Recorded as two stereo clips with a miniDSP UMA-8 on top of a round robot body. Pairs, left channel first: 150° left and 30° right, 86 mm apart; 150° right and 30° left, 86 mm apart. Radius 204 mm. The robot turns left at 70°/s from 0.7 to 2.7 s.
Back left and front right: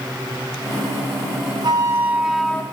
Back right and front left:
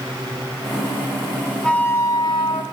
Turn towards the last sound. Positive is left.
turn(degrees=-145)